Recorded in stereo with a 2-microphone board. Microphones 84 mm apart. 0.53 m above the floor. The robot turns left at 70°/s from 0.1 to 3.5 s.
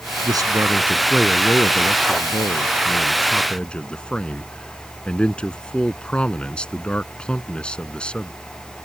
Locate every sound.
0.2 s a man speaking: 120° right; by 8.3 s 15° left